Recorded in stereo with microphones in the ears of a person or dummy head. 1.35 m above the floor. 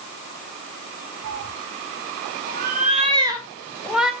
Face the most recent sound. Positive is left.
turn(degrees=0)  # may be behind; listen again after turning